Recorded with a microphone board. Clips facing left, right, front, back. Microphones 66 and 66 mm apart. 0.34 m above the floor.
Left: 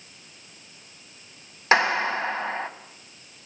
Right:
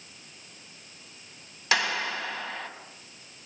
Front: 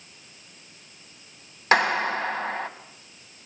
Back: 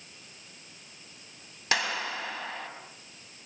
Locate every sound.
1.7 s a clap: 40° left, 1.8 m